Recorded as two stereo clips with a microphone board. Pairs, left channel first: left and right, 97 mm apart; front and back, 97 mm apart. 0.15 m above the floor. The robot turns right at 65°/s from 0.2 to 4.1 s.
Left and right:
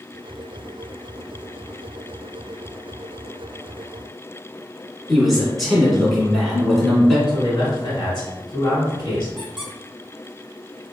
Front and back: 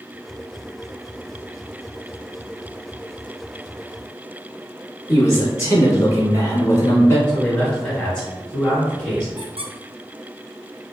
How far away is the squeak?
About 0.7 m.